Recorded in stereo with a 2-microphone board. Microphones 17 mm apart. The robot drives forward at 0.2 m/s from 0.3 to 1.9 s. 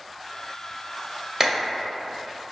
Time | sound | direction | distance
1.4 | a clap | 20° right (ahead or behind) | 0.8 m